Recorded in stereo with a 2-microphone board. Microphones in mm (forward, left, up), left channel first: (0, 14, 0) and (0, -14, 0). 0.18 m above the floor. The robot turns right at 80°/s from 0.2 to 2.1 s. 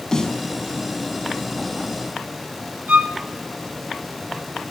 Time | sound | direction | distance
0.1 | a snare drum | 25° left (ahead or behind) | 1.2 m
2.9 | a violin | 65° right (ahead or behind) | 2.5 m